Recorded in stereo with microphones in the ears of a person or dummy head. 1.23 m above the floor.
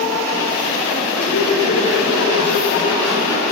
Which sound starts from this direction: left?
Laughter, at 1.1 s.